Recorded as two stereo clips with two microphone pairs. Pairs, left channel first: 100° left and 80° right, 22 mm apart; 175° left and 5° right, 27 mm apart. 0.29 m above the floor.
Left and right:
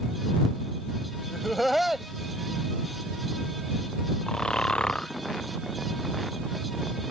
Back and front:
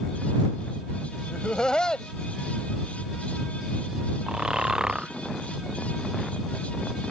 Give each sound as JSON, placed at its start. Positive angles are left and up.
{"t": 1.3, "sound": "laughter", "azimuth_deg": -170}
{"t": 4.3, "sound": "snoring", "azimuth_deg": 55}